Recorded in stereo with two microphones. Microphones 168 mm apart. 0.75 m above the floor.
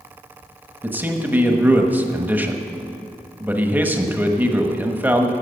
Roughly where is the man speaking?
Centre.